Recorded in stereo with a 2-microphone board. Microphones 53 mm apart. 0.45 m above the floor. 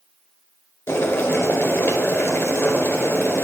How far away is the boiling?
About 1.5 m.